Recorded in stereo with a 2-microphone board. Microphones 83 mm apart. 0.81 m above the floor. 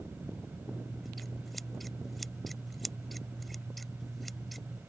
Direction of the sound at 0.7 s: Centre (ahead or behind).